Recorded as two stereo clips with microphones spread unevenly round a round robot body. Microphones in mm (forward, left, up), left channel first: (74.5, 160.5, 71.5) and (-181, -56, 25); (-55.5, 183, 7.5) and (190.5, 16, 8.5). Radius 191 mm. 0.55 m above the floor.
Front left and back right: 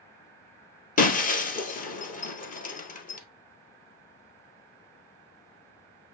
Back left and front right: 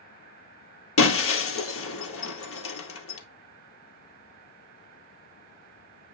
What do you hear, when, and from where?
1.0 s breaking glass: 105° left, 1.9 m